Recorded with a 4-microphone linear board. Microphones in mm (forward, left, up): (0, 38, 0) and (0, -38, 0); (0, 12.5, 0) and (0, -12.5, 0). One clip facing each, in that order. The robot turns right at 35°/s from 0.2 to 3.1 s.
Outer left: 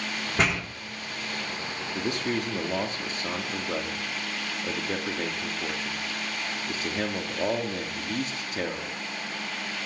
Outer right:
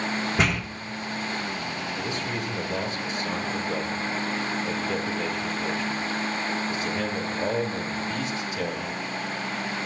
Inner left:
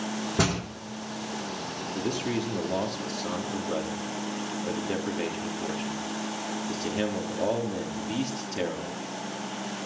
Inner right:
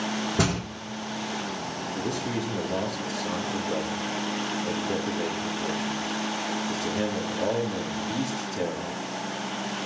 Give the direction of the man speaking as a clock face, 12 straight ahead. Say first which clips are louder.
Outer left 5 dB, inner left 1 dB; 10 o'clock.